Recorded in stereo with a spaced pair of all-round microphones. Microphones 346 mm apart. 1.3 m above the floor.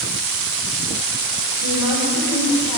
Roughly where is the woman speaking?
Right.